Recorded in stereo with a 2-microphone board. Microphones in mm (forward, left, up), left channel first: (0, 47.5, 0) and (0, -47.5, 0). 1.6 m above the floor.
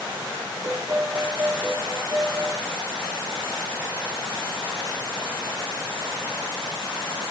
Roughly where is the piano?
Right.